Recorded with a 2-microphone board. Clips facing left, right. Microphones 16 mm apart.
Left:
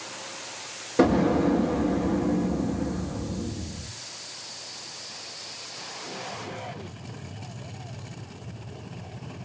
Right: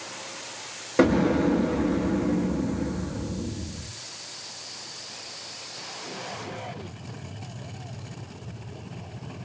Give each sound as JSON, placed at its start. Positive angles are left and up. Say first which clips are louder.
{"t": 1.0, "sound": "an explosion", "louder": "even", "side_deg": -20, "distance_m": 1.0}